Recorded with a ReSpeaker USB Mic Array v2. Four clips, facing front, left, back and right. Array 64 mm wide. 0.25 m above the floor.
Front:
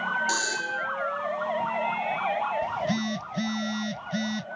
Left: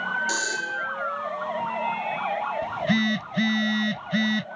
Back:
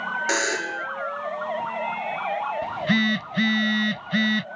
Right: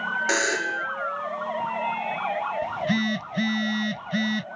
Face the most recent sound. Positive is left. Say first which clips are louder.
# left 3 dB, back 5 dB
turn(degrees=170)